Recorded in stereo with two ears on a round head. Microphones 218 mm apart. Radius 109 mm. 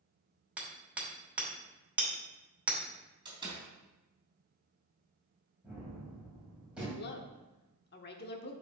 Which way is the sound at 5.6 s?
5° right (ahead or behind).